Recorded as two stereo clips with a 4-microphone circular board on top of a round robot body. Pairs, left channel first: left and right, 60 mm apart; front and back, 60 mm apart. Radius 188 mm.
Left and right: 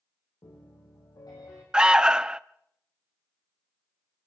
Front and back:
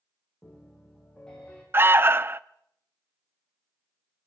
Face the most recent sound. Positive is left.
turn(degrees=-160)